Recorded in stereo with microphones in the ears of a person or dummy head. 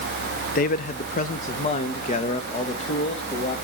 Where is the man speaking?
40° left (ahead or behind), 0.8 m; by 3.5 s 35° left (ahead or behind), 2.5 m.